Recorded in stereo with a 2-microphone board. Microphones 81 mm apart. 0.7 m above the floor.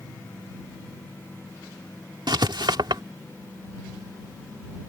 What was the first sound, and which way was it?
Writing, 65° right (ahead or behind).